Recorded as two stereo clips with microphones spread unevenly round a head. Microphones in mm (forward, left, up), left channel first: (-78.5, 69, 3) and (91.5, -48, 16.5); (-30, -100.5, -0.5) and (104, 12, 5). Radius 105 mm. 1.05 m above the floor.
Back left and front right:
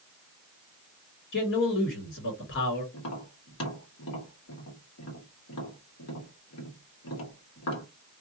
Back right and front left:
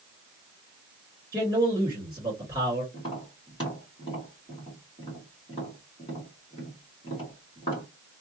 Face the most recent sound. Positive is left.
turn(degrees=155)